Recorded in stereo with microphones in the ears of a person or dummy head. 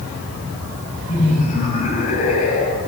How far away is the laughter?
About 7 m.